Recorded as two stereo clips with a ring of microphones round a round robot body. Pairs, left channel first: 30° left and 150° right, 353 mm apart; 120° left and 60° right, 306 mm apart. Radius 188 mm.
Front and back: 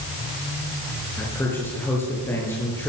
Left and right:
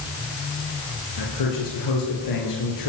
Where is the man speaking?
115° left, 9.5 m.